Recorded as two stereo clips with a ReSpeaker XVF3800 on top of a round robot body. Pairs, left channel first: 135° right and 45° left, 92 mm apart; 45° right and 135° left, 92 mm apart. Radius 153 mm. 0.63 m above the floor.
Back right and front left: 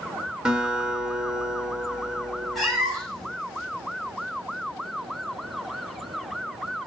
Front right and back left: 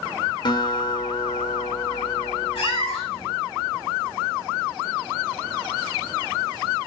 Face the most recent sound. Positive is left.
turn(degrees=-45)